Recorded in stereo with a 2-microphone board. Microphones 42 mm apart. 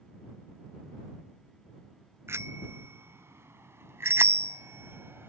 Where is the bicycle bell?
80° right; by 5.3 s 70° right (ahead or behind).